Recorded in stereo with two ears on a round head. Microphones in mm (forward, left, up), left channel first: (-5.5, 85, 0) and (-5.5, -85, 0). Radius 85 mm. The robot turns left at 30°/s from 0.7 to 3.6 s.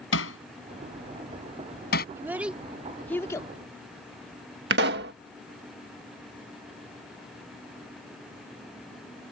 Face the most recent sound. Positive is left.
turn(degrees=-65)  # may be behind; listen again after turning